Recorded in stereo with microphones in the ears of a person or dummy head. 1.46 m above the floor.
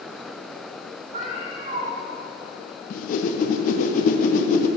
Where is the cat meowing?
40° right (ahead or behind), 1.6 m.